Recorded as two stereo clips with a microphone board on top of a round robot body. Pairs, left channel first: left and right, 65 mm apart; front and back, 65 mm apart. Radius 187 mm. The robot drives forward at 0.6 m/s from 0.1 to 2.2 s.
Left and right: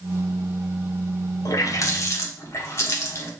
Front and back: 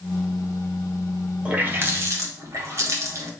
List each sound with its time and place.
1.4 s a running tap: 115° left, 0.8 m; by 3.3 s 140° left, 1.1 m